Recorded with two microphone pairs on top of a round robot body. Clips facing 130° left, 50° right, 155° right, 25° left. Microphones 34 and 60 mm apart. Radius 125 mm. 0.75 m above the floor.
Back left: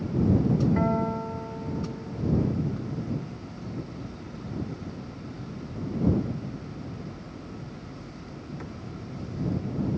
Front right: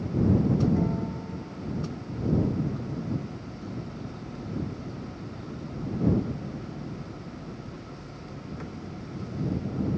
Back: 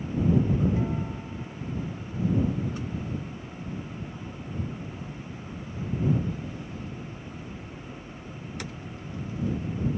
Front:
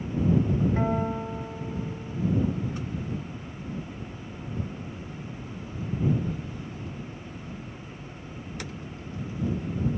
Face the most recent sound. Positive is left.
turn(degrees=80)